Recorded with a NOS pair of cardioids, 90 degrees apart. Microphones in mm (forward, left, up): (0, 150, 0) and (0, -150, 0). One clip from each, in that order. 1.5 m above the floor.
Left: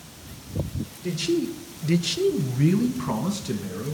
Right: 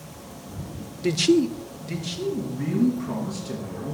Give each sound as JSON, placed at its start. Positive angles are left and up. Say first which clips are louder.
{"t": 1.0, "sound": "a man speaking", "louder": "right 6 dB", "azimuth_deg": -40, "distance_m": 0.7}